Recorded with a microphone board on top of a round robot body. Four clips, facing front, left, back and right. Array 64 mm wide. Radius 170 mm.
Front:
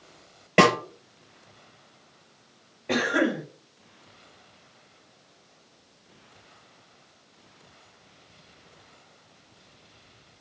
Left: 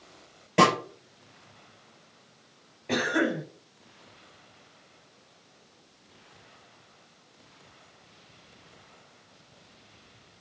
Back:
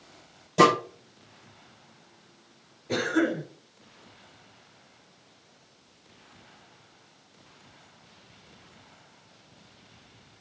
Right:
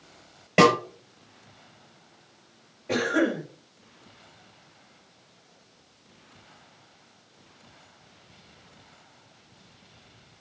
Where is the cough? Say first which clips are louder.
Right 2 dB, front 2 dB; 15° left, 4 m.